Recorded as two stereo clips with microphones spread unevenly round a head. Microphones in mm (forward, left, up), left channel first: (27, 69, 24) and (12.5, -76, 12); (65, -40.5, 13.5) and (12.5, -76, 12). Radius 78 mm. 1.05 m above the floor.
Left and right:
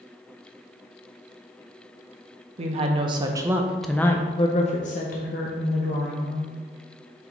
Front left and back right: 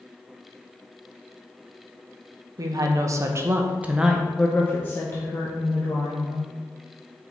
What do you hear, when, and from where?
2.6 s a woman speaking: 135° right, 1.0 m; by 6.5 s 70° left, 1.5 m